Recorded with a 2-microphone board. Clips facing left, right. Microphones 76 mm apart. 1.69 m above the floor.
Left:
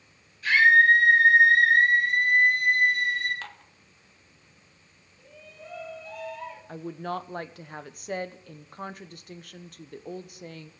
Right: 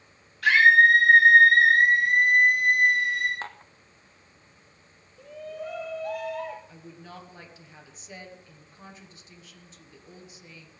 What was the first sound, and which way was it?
A scream, 85° right.